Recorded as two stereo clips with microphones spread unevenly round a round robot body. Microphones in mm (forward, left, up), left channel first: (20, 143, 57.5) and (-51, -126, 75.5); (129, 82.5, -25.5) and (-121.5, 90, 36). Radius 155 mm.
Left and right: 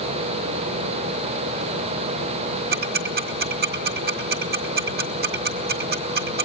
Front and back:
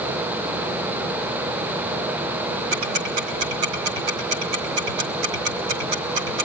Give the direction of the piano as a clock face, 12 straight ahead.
No piano in this recording.